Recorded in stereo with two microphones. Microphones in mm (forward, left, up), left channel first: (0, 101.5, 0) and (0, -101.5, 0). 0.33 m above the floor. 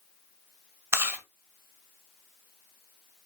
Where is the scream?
I don't hear a scream.